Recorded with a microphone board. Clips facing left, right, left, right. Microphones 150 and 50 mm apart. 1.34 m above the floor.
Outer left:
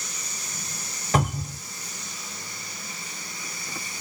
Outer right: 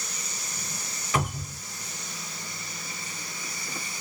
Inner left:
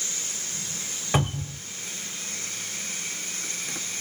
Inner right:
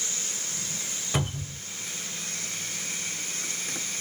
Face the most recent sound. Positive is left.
turn(degrees=40)  # may be behind; listen again after turning